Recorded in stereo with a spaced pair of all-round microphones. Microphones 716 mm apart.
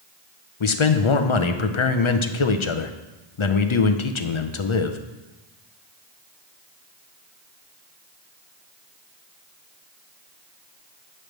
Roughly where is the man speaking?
Left.